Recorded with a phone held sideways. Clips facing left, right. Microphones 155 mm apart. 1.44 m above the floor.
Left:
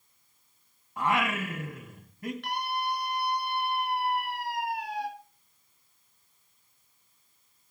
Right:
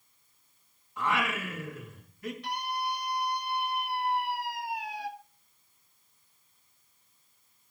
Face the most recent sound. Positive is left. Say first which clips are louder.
# left 1 dB
turn(degrees=75)  # may be behind; listen again after turning